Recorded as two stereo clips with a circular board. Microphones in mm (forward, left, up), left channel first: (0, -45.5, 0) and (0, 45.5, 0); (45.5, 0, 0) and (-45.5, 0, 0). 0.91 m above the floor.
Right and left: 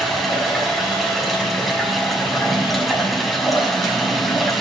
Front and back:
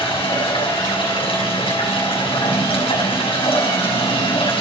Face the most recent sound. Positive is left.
turn(degrees=0)